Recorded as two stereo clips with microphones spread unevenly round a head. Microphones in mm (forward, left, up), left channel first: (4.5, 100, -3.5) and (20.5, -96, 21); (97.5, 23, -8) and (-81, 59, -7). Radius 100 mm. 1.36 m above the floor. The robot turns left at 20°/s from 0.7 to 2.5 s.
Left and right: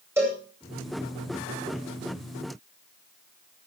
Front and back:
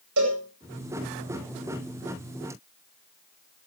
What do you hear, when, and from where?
0.2 s a cowbell: 165° right, 9 m